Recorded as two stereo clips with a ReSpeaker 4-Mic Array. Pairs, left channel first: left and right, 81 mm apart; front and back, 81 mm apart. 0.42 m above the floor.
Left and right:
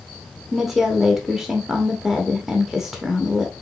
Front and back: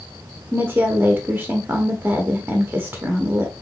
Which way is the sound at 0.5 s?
170° right.